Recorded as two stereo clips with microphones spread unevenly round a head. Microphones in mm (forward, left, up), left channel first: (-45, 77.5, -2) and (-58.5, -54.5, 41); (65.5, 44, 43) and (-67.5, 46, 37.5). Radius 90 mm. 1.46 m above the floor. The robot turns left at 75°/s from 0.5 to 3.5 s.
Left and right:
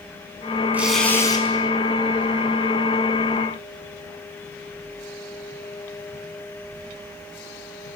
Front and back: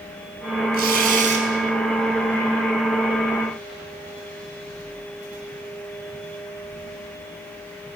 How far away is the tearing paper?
About 6 m.